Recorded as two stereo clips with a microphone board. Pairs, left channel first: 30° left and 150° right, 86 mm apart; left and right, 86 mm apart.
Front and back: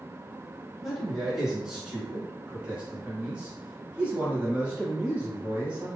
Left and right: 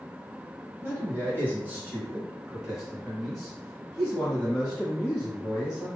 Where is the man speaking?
65° right, 1.8 m; by 5.9 s 150° left, 2.5 m.